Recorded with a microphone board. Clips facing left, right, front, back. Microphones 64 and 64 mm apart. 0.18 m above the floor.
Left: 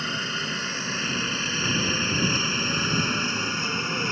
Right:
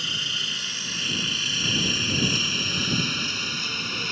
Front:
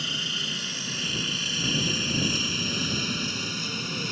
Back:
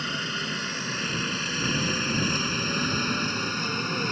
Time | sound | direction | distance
0.0 | a helicopter | 140° left | ?